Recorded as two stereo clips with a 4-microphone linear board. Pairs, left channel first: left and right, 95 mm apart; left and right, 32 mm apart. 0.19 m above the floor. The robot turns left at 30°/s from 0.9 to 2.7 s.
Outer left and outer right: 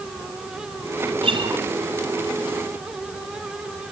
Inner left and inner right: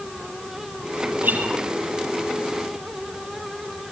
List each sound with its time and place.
1.2 s a guitar: 65° right (ahead or behind), 4.5 m; by 1.6 s 60° right (ahead or behind), 4.5 m